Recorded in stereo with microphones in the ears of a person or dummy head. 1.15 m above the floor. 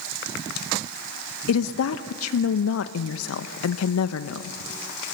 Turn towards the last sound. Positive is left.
turn(degrees=90)